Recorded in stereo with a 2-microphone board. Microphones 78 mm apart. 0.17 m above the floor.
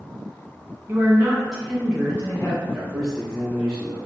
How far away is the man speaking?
About 1.8 m.